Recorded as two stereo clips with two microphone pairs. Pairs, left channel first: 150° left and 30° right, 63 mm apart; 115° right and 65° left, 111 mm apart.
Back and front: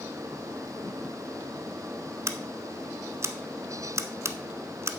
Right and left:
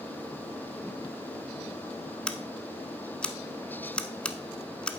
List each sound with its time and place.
2.3 s scissors: 35° right, 0.6 m